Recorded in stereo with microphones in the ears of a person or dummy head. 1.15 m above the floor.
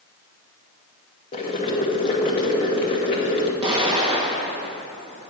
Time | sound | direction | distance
1.3 | boiling | 25° left (ahead or behind) | 0.9 m
3.6 | an explosion | 25° right (ahead or behind) | 1.1 m